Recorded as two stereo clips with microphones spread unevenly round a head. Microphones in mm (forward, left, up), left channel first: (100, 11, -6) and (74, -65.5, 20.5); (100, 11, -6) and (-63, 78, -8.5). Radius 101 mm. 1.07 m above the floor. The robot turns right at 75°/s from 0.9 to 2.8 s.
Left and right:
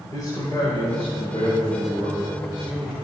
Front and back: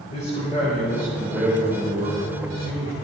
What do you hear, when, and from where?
0.1 s a man speaking: 30° left, 5 m; by 3.0 s 170° left, 5 m